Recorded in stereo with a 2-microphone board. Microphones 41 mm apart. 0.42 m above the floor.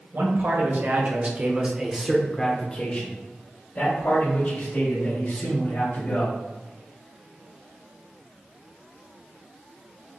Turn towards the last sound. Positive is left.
turn(degrees=70)  # may be behind; listen again after turning